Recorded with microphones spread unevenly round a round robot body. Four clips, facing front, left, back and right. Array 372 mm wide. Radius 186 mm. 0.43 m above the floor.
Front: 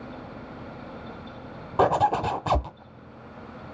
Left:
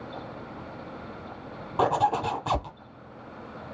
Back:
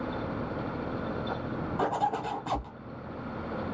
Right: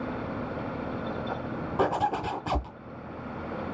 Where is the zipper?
5° left, 0.9 m.